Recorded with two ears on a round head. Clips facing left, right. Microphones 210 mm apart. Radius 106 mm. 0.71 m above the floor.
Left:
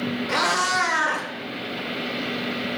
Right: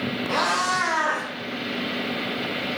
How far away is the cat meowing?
About 0.7 m.